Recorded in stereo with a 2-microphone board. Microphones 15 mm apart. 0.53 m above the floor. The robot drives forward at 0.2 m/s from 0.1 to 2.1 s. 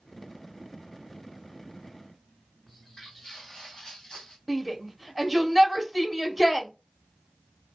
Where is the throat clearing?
No throat clearing in this recording.